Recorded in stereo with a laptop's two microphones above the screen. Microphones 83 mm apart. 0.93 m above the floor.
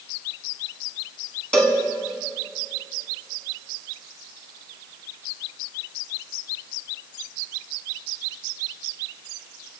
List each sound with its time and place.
1.5 s a cowbell: 15° left (ahead or behind), 7 m